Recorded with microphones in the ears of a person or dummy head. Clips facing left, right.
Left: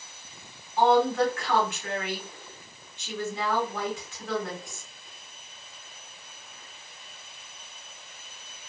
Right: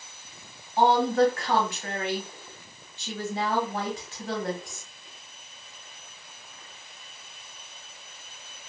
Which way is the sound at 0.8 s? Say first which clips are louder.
Right 1 dB; 30° right (ahead or behind).